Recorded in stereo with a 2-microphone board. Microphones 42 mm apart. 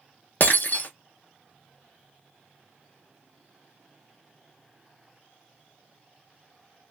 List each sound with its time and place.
0.4 s breaking glass: 50° left (ahead or behind), 0.7 m